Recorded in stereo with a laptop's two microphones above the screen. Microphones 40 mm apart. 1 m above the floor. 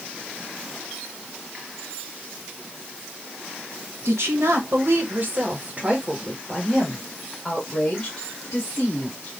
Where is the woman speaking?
75° right (ahead or behind), 1.4 m; by 9.3 s 30° left (ahead or behind), 2.5 m.